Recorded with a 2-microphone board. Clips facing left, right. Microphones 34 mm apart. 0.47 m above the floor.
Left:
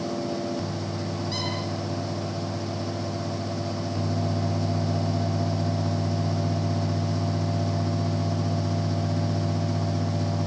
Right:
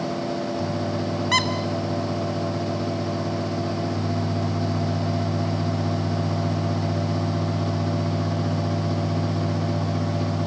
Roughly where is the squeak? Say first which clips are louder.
Right 13 dB; right.